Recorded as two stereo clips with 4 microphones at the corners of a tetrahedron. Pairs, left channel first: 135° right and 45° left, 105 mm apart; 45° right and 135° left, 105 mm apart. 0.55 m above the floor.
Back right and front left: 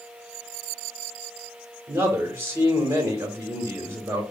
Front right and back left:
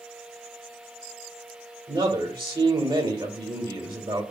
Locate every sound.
1.9 s a man speaking: 110° left, 1.6 m